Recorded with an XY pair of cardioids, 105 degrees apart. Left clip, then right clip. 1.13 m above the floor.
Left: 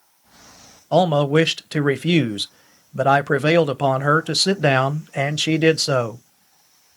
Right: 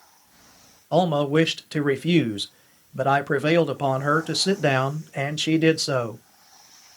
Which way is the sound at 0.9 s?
35° left.